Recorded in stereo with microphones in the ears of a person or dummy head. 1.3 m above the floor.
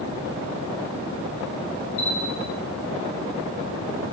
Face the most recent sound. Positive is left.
turn(degrees=65)  # may be behind; listen again after turning